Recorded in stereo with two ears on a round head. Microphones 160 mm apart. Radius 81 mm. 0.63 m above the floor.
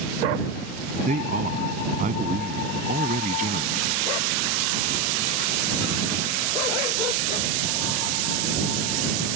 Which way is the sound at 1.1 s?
45° right (ahead or behind).